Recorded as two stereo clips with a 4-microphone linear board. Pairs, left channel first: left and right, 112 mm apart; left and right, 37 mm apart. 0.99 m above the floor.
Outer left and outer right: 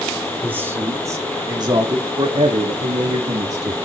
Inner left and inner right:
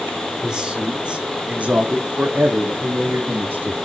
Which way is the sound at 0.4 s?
20° right (ahead or behind).